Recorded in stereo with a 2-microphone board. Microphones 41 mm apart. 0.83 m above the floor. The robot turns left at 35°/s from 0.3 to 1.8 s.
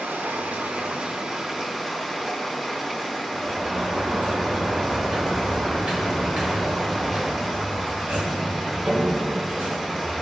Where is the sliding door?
40° right (ahead or behind), 3 m.